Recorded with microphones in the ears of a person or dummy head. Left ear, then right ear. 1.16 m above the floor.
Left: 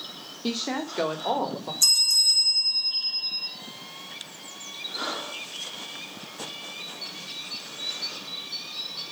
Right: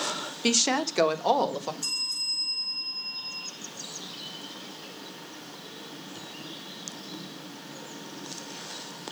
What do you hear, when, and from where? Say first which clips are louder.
0.4 s a woman speaking: right 5 dB; 65° right (ahead or behind), 1.1 m
1.8 s a bell: left 13 dB; 60° left (ahead or behind), 2 m